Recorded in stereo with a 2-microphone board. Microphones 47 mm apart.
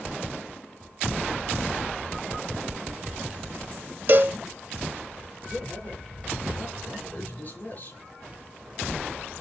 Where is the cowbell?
45° right (ahead or behind), 0.6 m.